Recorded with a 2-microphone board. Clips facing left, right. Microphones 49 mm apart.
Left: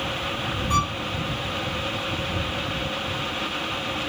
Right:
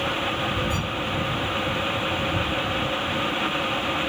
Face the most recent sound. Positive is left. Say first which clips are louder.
# left 5 dB
turn(degrees=60)  # may be behind; listen again after turning